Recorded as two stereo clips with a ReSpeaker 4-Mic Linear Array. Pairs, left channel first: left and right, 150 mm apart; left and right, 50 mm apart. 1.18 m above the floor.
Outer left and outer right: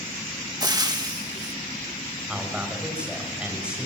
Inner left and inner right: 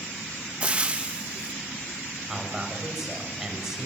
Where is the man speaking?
5° right (ahead or behind), 7.5 m.